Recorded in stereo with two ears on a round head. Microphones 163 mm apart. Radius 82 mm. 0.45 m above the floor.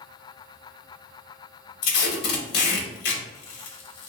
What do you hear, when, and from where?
1.8 s tape being pulled: 60° left (ahead or behind), 0.6 m